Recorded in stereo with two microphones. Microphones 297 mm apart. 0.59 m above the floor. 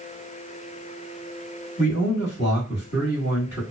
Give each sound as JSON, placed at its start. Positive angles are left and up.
{"t": 1.8, "sound": "a man speaking", "side_deg": 40, "distance_m": 1.4}